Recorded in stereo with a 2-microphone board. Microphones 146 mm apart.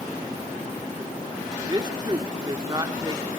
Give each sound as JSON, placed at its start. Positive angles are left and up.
{"t": 1.7, "sound": "a man speaking", "side_deg": -30, "distance_m": 0.8}